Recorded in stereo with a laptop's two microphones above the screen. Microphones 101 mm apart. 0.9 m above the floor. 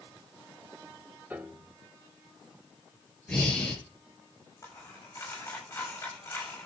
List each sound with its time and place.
1.3 s a piano: 20° right (ahead or behind), 2 m
3.3 s breathing: 10° left (ahead or behind), 7.5 m
4.6 s a dropped coin: 30° left (ahead or behind), 8 m